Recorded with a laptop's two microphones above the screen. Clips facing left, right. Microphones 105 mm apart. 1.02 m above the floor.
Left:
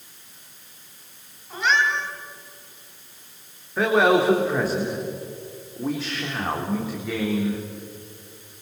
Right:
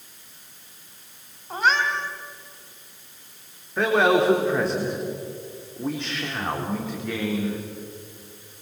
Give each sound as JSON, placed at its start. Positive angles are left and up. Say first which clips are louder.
{"t": 1.5, "sound": "a cat meowing", "louder": "even", "side_deg": -45, "distance_m": 2.5}
{"t": 3.8, "sound": "a man speaking", "louder": "left 1 dB", "side_deg": 5, "distance_m": 3.5}